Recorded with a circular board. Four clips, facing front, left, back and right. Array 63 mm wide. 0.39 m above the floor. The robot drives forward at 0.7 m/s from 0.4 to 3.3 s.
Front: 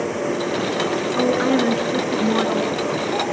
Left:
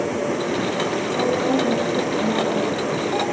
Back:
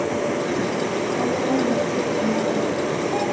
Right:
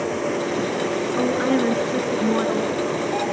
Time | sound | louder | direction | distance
1.2 | a woman speaking | even, front 5 dB | 30° right | 5 m